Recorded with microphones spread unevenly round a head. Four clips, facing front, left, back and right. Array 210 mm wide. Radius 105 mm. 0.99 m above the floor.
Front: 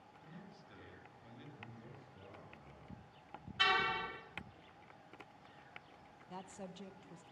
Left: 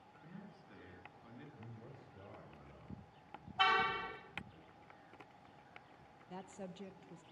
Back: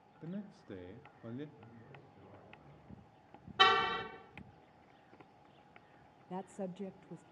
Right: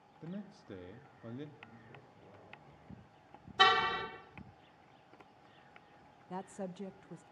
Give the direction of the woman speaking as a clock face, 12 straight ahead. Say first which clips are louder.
Right 7 dB, back 7 dB; 5 o'clock.